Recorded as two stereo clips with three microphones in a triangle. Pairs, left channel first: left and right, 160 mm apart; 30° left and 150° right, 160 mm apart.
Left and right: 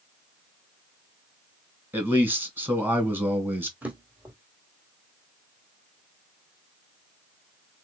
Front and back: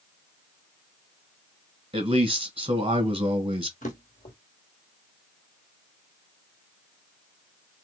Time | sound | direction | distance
1.9 | a man speaking | 160° right | 1.5 m
3.8 | a drawer | 10° right | 2 m